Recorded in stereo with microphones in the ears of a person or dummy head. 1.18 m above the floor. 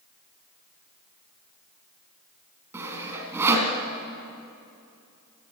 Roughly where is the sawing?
Centre.